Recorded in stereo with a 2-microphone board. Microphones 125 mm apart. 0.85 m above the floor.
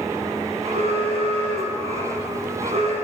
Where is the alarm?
50° right (ahead or behind), 10 m.